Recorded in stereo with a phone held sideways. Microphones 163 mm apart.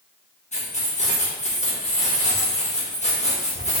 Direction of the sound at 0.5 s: 45° left (ahead or behind).